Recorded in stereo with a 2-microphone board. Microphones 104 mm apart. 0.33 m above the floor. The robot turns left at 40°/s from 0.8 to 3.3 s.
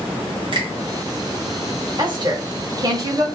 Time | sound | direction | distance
0.5 | a finger snap | 50° right (ahead or behind) | 1.7 m
2.0 | a woman speaking | 90° right | 1.4 m